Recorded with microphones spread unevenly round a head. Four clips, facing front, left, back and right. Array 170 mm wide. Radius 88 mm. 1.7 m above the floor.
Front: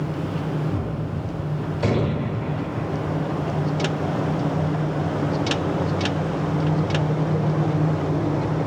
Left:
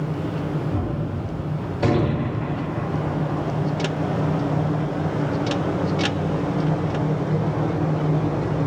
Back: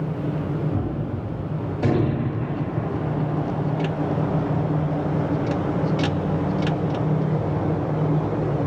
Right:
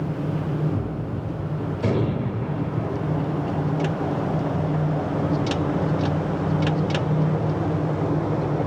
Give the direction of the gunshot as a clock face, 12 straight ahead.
10 o'clock.